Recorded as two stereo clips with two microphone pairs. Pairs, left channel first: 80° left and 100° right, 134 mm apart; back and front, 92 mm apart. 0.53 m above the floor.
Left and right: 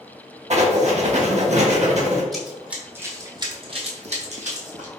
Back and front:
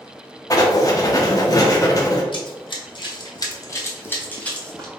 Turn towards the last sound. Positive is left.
turn(degrees=-100)